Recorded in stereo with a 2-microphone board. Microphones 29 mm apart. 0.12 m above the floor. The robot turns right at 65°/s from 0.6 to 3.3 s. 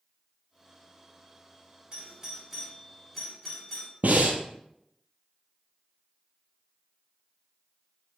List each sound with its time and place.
1.9 s a doorbell: 30° right (ahead or behind), 1.7 m; by 3.9 s 10° left (ahead or behind), 1.7 m
4.0 s breathing: 70° right (ahead or behind), 0.8 m